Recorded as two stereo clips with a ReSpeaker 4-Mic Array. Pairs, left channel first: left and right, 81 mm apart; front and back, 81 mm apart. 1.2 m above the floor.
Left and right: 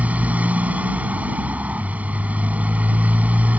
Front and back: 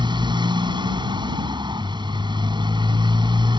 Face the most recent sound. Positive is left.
turn(degrees=-160)